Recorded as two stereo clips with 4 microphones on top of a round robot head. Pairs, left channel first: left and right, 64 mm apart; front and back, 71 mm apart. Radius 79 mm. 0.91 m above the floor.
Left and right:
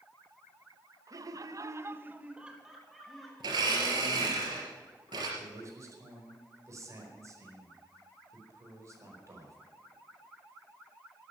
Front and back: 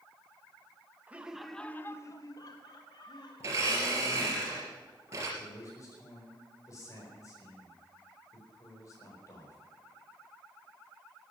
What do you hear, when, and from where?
1.1 s laughter: 110° right, 1.2 m; by 4.4 s 10° left, 3.5 m
3.4 s a blender: 120° right, 3.5 m
5.4 s a man speaking: 50° right, 4.5 m